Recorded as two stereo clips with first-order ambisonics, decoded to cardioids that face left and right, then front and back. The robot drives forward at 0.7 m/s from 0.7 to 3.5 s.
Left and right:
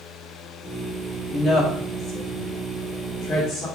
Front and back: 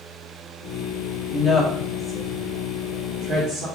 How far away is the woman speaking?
About 1.2 m.